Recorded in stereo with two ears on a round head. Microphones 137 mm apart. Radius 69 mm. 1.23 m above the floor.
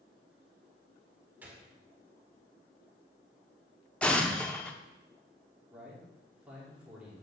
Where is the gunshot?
10° right (ahead or behind), 1.8 m.